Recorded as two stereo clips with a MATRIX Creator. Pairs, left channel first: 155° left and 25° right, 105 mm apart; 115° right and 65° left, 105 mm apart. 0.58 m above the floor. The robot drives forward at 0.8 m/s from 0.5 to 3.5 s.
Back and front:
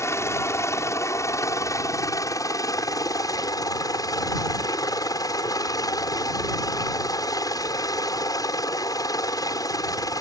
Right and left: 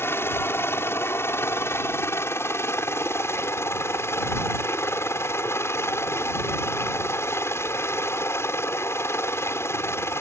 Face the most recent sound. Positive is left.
turn(degrees=-165)